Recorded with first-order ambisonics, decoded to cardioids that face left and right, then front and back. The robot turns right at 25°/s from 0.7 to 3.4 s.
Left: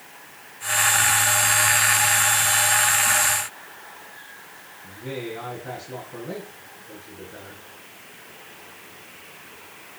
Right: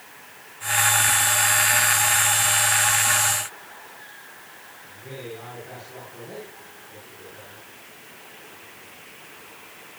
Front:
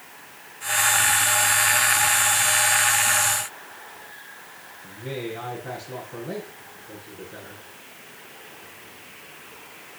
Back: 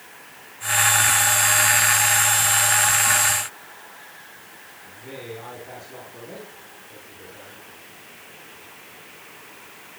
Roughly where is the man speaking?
Ahead left.